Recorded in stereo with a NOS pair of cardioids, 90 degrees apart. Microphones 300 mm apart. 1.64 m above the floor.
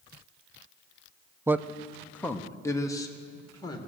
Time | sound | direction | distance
1.5 | a man speaking | 10° right | 0.5 m